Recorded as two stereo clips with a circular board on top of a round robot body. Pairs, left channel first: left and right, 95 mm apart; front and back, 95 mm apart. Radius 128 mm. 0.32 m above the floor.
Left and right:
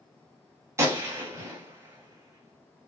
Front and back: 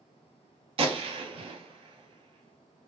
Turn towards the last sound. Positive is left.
turn(degrees=-155)